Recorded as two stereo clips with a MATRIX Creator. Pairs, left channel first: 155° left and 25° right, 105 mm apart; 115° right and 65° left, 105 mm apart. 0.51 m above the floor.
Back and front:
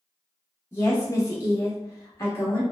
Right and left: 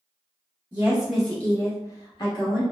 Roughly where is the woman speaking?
Behind left.